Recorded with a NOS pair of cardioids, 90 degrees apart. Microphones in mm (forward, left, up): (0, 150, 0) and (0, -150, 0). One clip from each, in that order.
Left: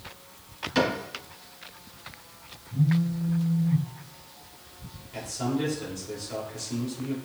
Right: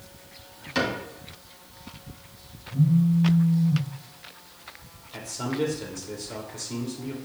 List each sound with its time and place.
0.8 s a cupboard door: 10° right, 3.5 m
2.7 s a phone buzzing: 10° right, 1.0 m
5.1 s a man speaking: 20° right, 3 m